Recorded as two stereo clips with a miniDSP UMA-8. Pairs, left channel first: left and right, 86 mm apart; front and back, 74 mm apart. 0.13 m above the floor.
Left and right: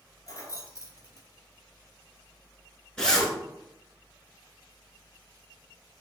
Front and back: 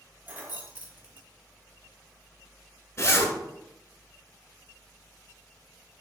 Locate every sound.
0.3 s keys jangling: 125° left, 1.2 m
3.0 s a zipper: 15° left, 1.0 m